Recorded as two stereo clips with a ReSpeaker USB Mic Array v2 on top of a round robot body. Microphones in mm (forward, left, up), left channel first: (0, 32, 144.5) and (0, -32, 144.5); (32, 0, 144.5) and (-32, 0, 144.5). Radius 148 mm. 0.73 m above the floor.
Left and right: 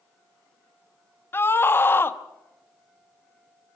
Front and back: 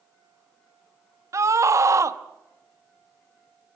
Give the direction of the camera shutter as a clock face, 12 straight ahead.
I don't hear a camera shutter.